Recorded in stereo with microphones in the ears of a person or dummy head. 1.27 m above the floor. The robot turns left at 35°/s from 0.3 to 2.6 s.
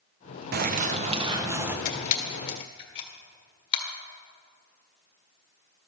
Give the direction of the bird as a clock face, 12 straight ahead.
4 o'clock.